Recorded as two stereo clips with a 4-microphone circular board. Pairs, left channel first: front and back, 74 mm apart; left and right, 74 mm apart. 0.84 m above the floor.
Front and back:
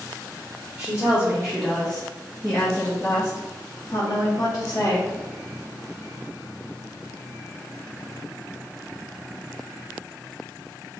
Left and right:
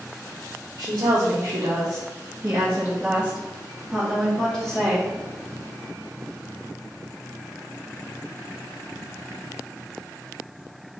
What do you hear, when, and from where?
0.8 s a woman speaking: 120° right, 1.2 m; by 5.1 s 10° left, 1.8 m